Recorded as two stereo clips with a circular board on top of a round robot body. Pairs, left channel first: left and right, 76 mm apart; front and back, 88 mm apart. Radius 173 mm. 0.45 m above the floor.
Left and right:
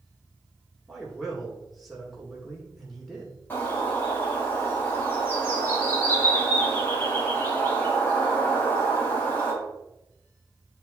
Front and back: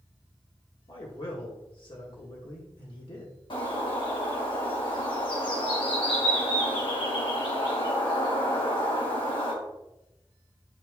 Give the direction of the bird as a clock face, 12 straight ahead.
11 o'clock.